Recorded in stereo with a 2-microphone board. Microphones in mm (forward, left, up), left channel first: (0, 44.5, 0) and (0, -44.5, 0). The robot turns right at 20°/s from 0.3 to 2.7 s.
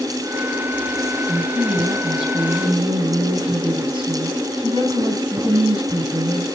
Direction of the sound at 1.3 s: 70° right (ahead or behind).